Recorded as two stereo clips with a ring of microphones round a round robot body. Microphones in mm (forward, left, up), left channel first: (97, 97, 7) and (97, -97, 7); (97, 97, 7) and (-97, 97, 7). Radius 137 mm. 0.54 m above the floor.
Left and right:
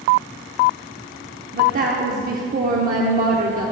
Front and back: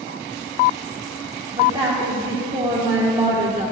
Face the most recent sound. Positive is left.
turn(degrees=-120)